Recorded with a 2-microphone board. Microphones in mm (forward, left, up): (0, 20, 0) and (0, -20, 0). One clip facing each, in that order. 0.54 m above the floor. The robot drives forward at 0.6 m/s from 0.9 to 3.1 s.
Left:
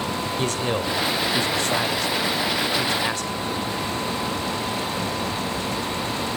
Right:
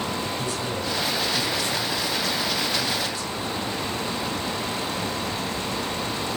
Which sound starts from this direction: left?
A man speaking, at 0.4 s.